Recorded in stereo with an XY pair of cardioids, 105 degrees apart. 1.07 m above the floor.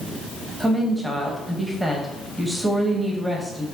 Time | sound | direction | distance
0.6 | a woman speaking | 10° right | 0.6 m